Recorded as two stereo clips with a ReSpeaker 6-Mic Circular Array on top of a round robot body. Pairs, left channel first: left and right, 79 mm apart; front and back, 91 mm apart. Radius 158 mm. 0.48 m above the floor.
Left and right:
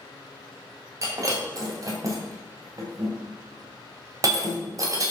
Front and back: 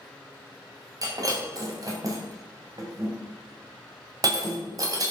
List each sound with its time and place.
1.0 s breaking glass: 135° right, 3 m